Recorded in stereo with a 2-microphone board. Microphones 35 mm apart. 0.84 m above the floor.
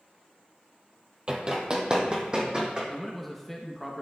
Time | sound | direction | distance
1.3 | running footsteps | 25° right (ahead or behind) | 1.1 m
2.9 | a man speaking | 5° left (ahead or behind) | 0.7 m